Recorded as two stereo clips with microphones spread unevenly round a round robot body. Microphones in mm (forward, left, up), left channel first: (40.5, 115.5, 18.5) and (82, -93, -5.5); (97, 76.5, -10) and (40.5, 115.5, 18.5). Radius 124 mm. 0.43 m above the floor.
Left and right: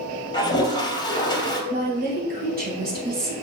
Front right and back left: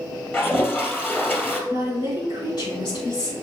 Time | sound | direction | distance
0.3 | a toilet flushing | 30° left | 2 m
1.7 | a woman speaking | 35° right | 3 m